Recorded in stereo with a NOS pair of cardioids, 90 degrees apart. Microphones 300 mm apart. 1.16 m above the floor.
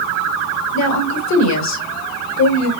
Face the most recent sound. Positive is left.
turn(degrees=65)